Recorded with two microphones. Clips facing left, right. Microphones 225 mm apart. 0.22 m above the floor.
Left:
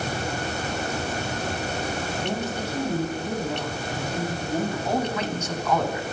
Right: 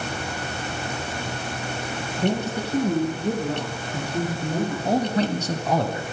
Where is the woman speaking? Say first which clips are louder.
Right 8 dB; 60° right (ahead or behind), 4 m.